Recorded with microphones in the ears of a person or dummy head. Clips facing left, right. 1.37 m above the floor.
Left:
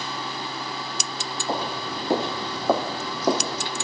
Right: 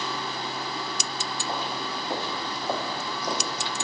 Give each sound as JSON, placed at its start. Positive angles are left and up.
{"t": 1.5, "sound": "footsteps", "side_deg": 45, "distance_m": 1.9}